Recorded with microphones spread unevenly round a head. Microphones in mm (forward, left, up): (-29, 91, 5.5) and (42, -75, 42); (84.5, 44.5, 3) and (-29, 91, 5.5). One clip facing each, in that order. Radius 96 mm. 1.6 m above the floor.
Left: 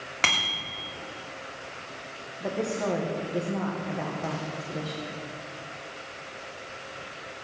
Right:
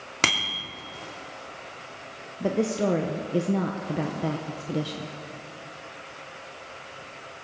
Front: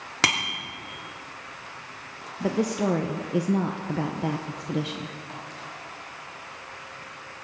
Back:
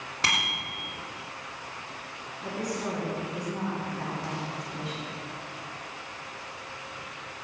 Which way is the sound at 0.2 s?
30° right.